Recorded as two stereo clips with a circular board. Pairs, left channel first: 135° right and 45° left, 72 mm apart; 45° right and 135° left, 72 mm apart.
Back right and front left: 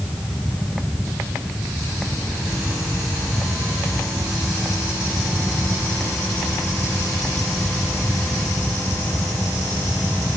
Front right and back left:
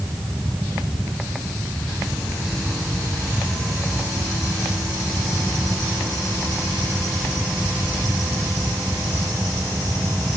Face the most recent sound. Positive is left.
No sound to turn to.